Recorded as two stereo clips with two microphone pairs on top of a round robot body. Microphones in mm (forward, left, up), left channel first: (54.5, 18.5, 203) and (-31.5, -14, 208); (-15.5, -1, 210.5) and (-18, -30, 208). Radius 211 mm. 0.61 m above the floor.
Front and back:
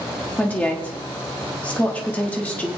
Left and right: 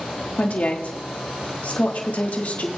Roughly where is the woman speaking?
Left.